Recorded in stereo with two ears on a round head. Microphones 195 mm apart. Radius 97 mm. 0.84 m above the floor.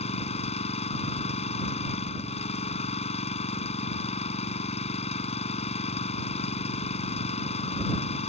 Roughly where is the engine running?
Left.